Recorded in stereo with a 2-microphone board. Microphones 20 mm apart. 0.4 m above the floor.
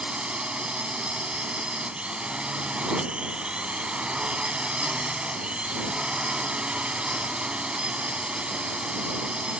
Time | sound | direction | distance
0.0 | a drone | 65° right (ahead or behind) | ?